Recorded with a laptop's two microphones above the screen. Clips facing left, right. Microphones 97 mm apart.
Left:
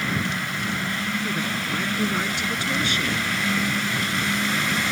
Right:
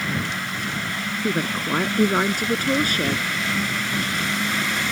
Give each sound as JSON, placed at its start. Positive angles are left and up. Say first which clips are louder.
{"t": 1.2, "sound": "a woman speaking", "louder": "right 3 dB", "side_deg": -45}